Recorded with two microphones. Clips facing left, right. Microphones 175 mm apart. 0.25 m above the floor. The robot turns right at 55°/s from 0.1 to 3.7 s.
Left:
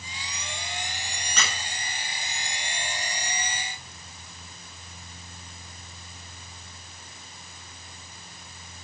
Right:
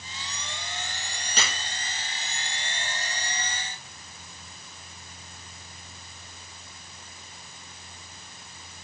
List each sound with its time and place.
1.4 s a squeak: 35° right (ahead or behind), 1.1 m; by 1.6 s 25° right (ahead or behind), 1.1 m